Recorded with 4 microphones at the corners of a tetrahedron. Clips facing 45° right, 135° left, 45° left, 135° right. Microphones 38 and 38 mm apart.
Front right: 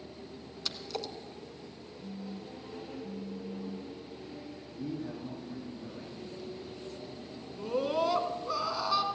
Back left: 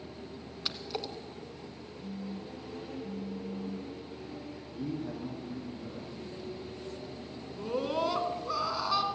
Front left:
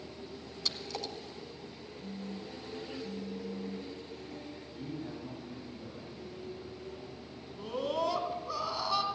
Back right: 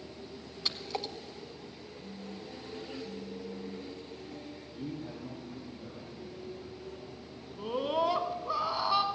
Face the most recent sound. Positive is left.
turn(degrees=-140)